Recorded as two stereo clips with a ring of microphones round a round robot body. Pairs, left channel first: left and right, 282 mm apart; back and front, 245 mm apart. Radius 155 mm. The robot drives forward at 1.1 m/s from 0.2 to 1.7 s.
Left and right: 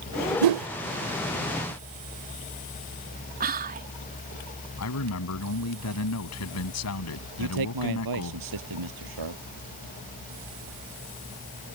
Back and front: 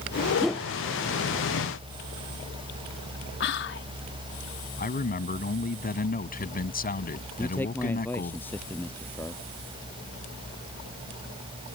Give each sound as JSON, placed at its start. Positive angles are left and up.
{"t": 0.4, "sound": "a whoosh", "azimuth_deg": -85}
{"t": 3.4, "sound": "whispering", "azimuth_deg": -145}
{"t": 4.8, "sound": "a man speaking", "azimuth_deg": 125}
{"t": 7.4, "sound": "a man speaking", "azimuth_deg": -95}